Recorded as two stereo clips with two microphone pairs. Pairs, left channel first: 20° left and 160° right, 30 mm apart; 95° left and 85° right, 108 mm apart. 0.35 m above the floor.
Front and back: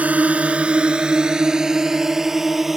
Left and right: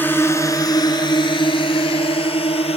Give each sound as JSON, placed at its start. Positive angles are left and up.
{"t": 0.0, "sound": "a drone", "azimuth_deg": 165}